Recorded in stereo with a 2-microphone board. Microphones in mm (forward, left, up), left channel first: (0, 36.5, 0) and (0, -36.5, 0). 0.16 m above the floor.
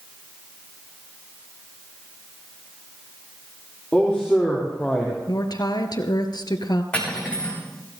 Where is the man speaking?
10° left (ahead or behind), 5.5 m; by 5.2 s 5° right (ahead or behind), 4.5 m.